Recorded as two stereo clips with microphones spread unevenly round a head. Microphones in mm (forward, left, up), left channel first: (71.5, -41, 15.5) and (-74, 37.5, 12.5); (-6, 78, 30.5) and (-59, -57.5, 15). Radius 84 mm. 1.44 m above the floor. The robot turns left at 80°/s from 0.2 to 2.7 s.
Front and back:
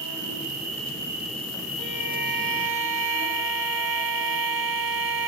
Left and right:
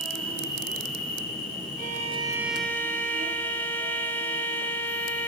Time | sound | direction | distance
0.0 | an insect | 150° left | 1.2 m
1.8 | a violin | 140° right | 0.7 m